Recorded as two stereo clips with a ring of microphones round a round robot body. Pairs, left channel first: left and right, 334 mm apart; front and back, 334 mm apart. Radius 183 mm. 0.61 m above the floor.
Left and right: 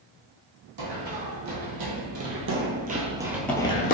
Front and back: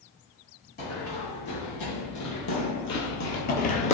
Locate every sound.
0.8 s running footsteps: 65° right, 1.6 m; by 3.9 s 55° left, 0.6 m